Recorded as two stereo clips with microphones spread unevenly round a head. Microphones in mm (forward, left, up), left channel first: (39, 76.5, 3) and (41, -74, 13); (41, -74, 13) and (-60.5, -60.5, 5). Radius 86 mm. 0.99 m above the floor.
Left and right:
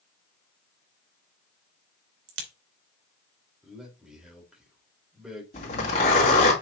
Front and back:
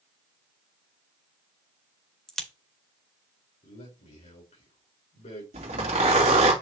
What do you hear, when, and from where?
2.3 s a crack: 95° right, 2.5 m
3.6 s a man speaking: 5° right, 4.5 m
5.5 s a zipper: 145° left, 3 m